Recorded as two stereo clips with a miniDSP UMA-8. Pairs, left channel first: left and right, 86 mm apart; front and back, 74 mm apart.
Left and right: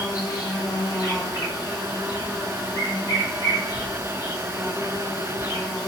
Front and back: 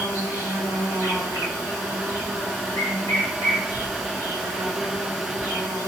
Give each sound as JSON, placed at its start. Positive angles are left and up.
{"t": 0.0, "sound": "an insect", "azimuth_deg": 45, "distance_m": 1.1}